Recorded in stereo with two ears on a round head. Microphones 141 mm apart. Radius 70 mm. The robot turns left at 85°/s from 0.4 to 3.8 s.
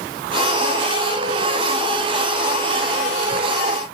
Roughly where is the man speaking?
No man speaking in this recording.